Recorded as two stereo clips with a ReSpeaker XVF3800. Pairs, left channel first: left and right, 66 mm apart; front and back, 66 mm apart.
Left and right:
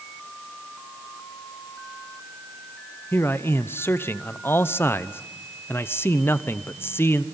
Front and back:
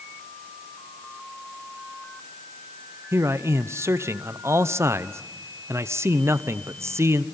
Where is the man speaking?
140° left, 0.7 m.